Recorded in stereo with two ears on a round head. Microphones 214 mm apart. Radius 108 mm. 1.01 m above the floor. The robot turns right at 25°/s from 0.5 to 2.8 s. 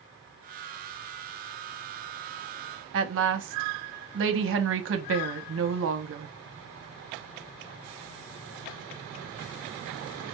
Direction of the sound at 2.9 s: 55° right (ahead or behind).